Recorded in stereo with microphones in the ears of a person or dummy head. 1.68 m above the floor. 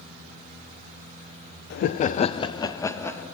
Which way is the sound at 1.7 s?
45° left (ahead or behind).